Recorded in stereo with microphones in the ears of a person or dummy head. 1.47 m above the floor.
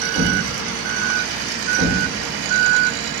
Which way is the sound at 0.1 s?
20° right (ahead or behind).